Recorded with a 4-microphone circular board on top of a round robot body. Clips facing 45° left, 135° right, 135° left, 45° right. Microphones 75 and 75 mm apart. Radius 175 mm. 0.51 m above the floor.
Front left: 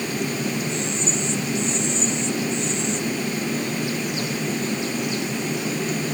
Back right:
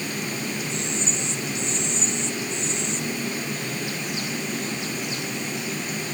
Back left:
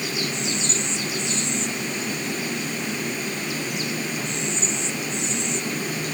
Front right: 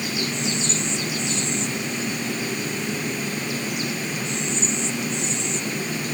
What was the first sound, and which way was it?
Only background noise.